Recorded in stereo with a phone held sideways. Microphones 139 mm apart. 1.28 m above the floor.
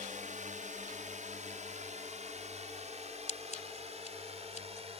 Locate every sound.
0.0 s a drone: 65° right (ahead or behind); by 5.0 s 45° right (ahead or behind)
3.3 s scissors: 55° left (ahead or behind)